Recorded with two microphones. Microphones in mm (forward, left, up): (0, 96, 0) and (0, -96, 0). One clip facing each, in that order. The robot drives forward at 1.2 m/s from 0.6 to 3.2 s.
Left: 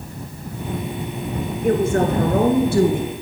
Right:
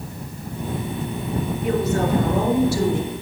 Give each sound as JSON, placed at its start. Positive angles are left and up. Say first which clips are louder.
{"t": 1.6, "sound": "a woman speaking", "louder": "left 4 dB", "side_deg": 50, "distance_m": 2.5}